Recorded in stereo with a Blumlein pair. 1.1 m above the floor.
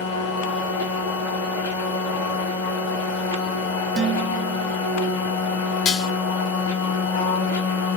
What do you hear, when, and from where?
0.0 s a machine running: 65° left, 1.9 m
4.0 s dishes clattering: 30° right, 0.6 m
5.8 s dishes clattering: 35° left, 0.7 m